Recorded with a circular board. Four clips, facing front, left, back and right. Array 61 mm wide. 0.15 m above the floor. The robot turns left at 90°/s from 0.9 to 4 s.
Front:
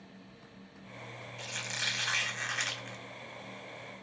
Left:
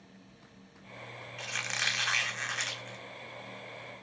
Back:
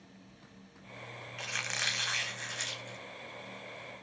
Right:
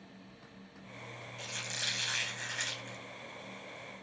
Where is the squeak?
150° left, 0.7 m; by 3.0 s 10° left, 0.7 m.